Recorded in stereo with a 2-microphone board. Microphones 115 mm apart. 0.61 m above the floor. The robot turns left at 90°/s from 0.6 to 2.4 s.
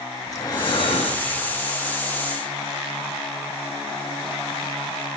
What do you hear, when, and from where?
0.3 s breathing: 145° left, 2.0 m; by 1.6 s 55° left, 2.0 m